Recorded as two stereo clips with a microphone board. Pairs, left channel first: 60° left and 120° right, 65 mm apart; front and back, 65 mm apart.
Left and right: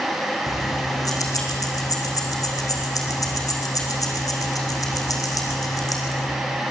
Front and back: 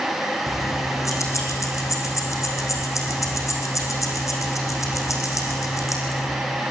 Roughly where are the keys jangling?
Ahead left.